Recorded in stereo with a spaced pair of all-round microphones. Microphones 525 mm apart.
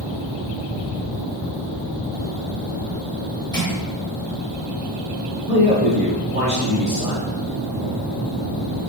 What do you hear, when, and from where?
3.5 s crushing: 75° left (ahead or behind), 1.4 m
5.5 s a man speaking: 25° left (ahead or behind), 1.5 m